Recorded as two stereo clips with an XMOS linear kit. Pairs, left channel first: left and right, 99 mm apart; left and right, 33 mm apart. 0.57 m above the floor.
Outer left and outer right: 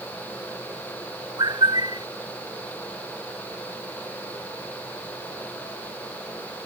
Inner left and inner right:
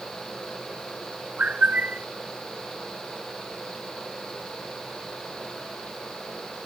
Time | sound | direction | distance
1.4 | a bird | 45° right (ahead or behind) | ?